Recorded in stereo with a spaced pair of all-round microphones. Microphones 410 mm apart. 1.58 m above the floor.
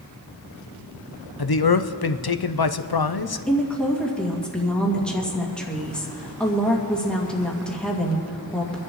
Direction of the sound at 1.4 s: 60° left (ahead or behind).